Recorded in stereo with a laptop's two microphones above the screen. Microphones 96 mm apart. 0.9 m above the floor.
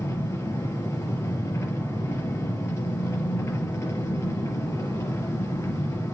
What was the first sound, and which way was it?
An engine running, 30° left (ahead or behind).